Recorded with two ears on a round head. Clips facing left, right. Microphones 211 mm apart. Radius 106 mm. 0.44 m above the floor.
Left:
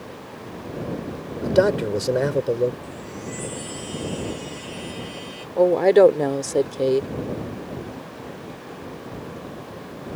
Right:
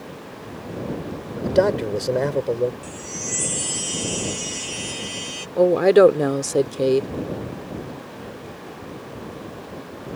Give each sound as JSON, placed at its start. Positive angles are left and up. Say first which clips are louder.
{"t": 1.4, "sound": "a man speaking", "louder": "even", "side_deg": 10}
{"t": 2.8, "sound": "a chime", "louder": "even", "side_deg": -65}
{"t": 5.6, "sound": "a woman speaking", "louder": "right 1 dB", "side_deg": -10}